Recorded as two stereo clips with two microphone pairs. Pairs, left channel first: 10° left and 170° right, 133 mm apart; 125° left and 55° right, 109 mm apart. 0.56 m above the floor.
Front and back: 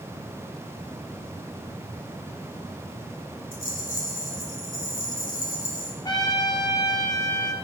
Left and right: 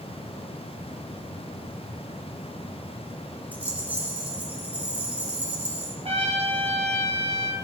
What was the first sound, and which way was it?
A rattle, 20° left.